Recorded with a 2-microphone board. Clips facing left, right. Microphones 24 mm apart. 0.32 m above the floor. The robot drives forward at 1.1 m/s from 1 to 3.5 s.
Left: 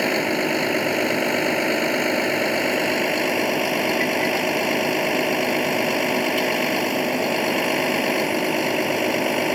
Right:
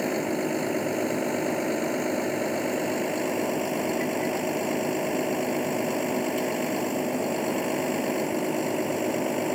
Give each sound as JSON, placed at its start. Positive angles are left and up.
{"t": 0.0, "sound": "a vehicle", "side_deg": 75}